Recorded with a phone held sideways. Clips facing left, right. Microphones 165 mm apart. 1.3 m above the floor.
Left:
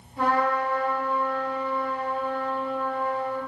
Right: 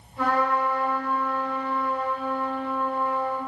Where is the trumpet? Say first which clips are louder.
Even; 30° left (ahead or behind), 1.3 m.